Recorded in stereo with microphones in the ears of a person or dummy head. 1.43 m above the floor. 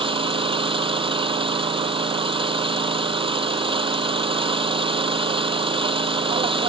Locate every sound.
0.0 s an engine running: 30° right (ahead or behind)